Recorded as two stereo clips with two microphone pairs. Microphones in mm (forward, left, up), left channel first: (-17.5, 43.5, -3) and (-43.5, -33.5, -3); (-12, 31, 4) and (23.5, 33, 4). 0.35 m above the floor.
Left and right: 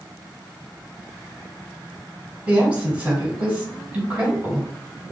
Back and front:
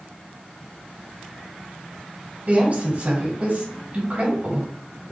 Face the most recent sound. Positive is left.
turn(degrees=-35)